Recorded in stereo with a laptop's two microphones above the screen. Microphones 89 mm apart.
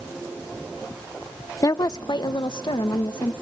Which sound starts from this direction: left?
A woman speaking, at 1.6 s.